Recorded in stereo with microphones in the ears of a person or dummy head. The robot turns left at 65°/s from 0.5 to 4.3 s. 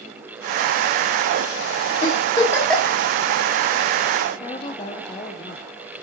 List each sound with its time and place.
2.0 s a giggle: 45° left (ahead or behind), 3 m; by 3.0 s 10° right (ahead or behind), 3 m
4.4 s a woman speaking: 40° left (ahead or behind), 1.3 m